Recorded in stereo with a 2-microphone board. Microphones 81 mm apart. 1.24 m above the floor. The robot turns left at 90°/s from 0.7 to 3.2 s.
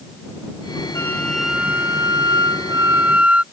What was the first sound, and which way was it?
A flute, 40° left.